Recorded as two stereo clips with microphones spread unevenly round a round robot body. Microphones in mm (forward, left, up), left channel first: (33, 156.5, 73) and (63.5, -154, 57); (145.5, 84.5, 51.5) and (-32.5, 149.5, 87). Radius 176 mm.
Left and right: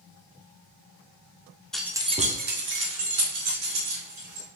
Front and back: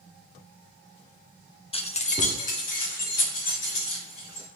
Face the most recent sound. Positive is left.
turn(degrees=-60)